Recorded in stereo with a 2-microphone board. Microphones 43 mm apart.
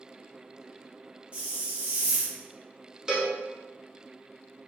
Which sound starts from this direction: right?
A hiss, at 1.3 s.